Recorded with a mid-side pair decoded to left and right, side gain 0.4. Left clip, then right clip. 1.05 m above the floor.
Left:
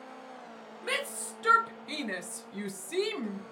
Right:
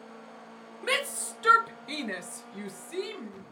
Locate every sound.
0.8 s a shout: 45° right, 1.1 m; by 3.4 s 60° left, 0.8 m